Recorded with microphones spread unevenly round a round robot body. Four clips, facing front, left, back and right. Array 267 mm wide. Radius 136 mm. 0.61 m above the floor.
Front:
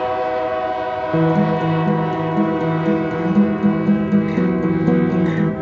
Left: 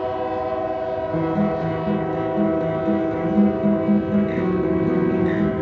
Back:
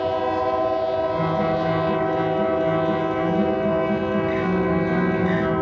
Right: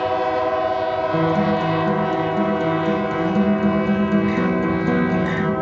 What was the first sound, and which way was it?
A guitar, straight ahead.